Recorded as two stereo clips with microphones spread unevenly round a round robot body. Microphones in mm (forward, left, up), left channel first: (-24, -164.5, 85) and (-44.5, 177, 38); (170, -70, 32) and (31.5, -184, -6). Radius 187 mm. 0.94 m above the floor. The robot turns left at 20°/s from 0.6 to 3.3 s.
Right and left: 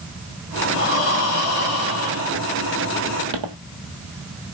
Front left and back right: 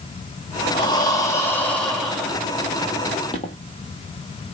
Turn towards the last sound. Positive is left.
turn(degrees=70)